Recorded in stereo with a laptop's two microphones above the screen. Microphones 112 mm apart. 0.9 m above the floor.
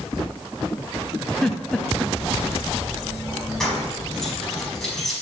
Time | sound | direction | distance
1.4 | a giggle | 5° left (ahead or behind) | 0.8 m
3.6 | keys jangling | 5° left (ahead or behind) | 4.5 m